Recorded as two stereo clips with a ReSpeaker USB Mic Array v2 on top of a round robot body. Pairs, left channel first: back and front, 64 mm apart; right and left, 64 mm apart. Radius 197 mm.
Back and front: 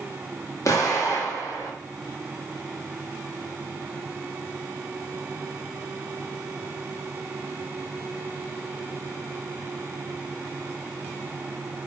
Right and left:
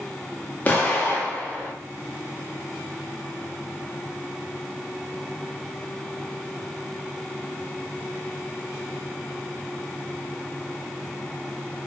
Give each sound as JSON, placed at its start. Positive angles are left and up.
{"t": 0.7, "sound": "an explosion", "azimuth_deg": -150, "distance_m": 0.9}